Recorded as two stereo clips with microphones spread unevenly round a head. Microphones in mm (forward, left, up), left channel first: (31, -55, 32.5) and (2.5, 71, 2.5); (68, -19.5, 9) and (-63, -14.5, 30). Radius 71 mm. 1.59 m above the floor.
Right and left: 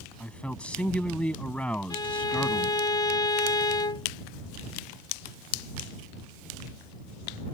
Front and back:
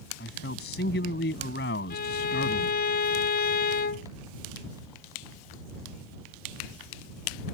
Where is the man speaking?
Straight ahead.